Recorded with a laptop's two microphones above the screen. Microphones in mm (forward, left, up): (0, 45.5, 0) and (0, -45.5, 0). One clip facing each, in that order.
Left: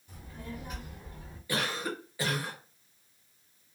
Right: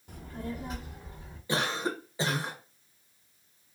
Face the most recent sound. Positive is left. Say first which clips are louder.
# right 3 dB
turn(degrees=-25)  # may be behind; listen again after turning